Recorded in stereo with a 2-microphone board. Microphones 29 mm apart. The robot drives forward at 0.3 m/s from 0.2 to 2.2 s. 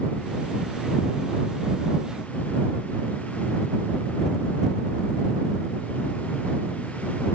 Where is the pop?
No pop in this recording.